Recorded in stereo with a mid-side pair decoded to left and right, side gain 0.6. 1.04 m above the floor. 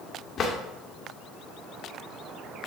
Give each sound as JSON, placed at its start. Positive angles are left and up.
{"t": 0.4, "sound": "a drawer", "azimuth_deg": 35, "distance_m": 1.7}